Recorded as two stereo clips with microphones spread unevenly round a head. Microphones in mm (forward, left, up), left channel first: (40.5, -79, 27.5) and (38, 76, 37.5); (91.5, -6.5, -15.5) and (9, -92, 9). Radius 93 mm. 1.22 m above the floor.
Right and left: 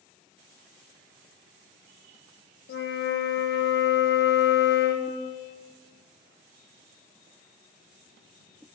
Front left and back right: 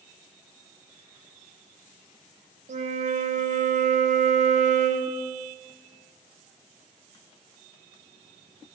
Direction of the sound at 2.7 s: 110° right.